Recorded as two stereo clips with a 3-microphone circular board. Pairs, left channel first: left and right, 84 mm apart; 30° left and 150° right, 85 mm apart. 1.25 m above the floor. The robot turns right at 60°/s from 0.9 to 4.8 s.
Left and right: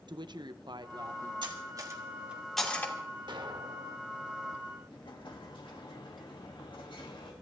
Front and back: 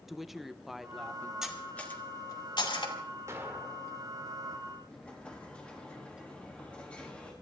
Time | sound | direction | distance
0.1 | a woman speaking | 60° right | 0.9 m
1.4 | cutlery clinking | 65° right | 2.5 m
3.3 | an explosion | 95° right | 1.6 m
4.9 | an explosion | 105° left | 3 m